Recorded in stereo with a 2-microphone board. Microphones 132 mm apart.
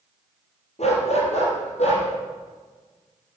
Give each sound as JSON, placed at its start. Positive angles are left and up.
{"t": 0.8, "sound": "a dog barking", "side_deg": 55, "distance_m": 4.5}